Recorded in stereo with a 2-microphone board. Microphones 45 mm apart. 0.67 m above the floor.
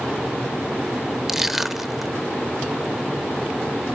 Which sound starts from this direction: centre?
Crushing, at 1.3 s.